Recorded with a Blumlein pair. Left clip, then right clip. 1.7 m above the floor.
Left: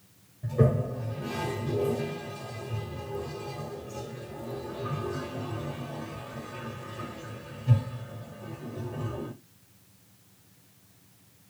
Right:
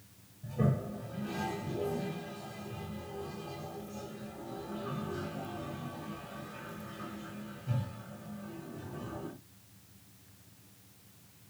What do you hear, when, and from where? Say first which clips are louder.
0.4 s a toilet flushing: left 8 dB; 40° left, 1.2 m